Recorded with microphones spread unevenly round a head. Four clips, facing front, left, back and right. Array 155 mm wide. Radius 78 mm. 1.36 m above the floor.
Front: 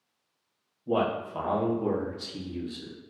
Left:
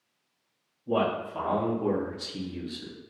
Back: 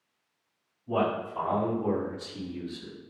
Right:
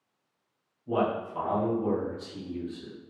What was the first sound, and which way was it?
A man speaking, 5° left.